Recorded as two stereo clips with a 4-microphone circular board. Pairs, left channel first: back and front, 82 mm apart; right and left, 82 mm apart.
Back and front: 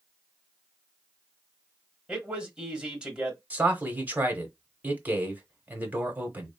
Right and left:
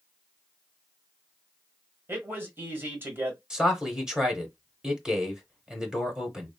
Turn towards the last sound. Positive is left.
turn(degrees=20)